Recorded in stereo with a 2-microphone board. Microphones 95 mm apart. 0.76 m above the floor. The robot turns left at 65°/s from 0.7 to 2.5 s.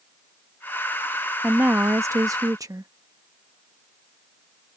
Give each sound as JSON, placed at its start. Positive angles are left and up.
{"t": 1.4, "sound": "a woman speaking", "azimuth_deg": -25}